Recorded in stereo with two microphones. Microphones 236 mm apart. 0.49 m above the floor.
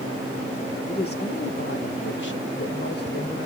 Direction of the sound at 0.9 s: 35° left (ahead or behind).